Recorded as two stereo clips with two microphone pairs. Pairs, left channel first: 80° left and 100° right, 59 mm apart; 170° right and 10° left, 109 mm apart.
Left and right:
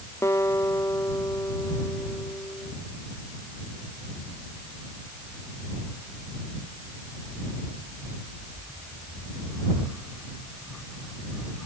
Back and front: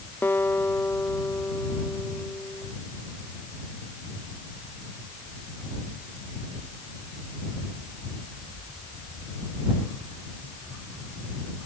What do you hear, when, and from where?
0.2 s a guitar: 120° left